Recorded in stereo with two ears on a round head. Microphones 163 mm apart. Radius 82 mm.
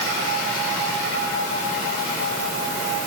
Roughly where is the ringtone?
No ringtone in this recording.